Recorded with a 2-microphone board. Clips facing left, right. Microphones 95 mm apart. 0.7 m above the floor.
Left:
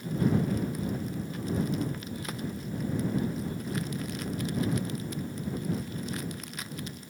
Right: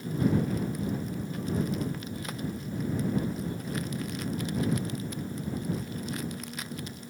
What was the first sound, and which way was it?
Only background noise.